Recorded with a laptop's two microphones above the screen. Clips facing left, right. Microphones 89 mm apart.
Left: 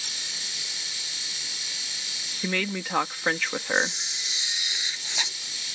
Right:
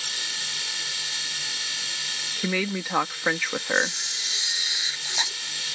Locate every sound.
0.0 s a machine running: 75° right (ahead or behind)
2.4 s a woman speaking: 5° right (ahead or behind)
3.8 s a camera shutter: 20° right (ahead or behind)